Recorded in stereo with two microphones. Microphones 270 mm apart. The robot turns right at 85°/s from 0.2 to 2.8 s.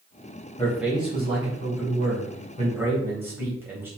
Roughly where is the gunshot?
No gunshot in this recording.